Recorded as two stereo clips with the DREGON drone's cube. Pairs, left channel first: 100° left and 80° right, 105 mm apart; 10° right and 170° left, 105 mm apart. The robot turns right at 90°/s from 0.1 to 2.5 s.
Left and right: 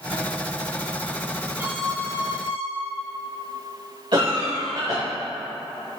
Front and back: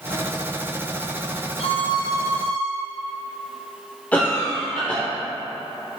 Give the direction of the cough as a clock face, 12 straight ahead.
3 o'clock.